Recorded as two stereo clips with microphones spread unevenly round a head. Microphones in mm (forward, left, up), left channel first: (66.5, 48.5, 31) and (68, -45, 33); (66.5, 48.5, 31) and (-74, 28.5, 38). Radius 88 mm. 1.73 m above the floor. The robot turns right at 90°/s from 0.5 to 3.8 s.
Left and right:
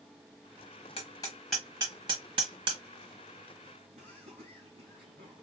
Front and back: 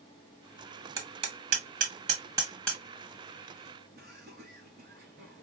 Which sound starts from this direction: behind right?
Laughter, at 4.0 s.